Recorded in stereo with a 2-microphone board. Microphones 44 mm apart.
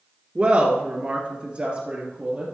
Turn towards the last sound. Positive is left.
turn(degrees=-25)  # may be behind; listen again after turning